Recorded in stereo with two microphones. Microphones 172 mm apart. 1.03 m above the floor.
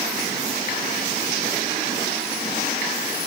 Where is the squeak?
I don't hear a squeak.